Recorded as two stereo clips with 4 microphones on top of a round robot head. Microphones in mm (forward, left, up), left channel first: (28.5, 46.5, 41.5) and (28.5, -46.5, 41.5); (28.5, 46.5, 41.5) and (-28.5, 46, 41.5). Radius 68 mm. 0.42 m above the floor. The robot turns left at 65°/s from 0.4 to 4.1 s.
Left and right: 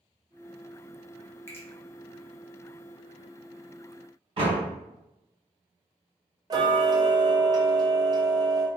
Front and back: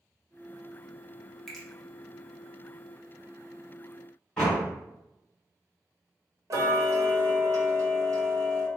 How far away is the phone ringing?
No phone ringing in this recording.